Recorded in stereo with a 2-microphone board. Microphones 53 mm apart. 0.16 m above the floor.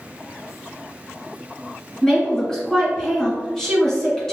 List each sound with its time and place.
2.0 s a woman speaking: 10° left (ahead or behind), 1.8 m